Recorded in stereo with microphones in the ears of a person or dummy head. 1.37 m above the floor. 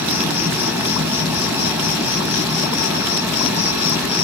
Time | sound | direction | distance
0.0 | an insect | 10° right (ahead or behind) | 3.5 m